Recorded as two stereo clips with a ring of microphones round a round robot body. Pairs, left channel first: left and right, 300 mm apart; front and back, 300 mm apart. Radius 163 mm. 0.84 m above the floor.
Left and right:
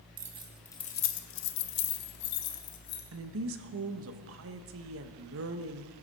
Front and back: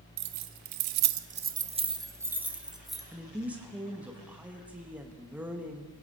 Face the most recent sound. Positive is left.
turn(degrees=-95)